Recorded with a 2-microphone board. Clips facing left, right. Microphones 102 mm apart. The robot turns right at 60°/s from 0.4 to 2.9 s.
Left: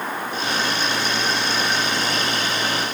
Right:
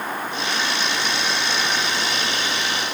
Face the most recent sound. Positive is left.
No sound to turn to.